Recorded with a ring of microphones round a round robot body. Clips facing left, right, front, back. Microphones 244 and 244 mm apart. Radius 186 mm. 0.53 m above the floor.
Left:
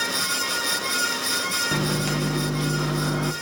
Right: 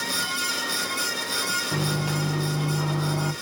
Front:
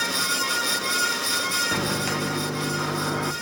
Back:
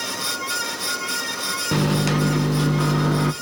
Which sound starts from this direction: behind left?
A microwave, at 1.7 s.